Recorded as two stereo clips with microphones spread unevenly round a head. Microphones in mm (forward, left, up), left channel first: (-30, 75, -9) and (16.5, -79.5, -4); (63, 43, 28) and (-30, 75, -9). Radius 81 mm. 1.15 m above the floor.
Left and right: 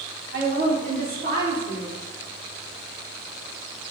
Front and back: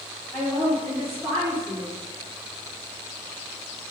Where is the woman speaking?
105° right, 2.5 m.